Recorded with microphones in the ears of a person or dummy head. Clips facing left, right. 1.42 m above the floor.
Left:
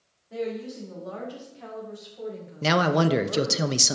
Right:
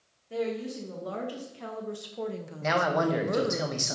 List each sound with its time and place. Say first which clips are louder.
0.3 s a woman speaking: even; 40° right (ahead or behind), 2.5 m
2.6 s a man speaking: left 4 dB; 50° left (ahead or behind), 0.6 m